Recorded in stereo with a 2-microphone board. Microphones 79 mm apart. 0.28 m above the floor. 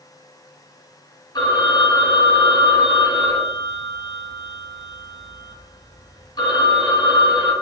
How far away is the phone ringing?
About 0.9 m.